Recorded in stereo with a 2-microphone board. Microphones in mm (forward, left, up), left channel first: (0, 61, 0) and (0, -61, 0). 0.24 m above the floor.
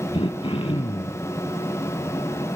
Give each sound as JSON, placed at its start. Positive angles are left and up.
{"t": 0.1, "sound": "throat clearing", "side_deg": 50, "distance_m": 1.1}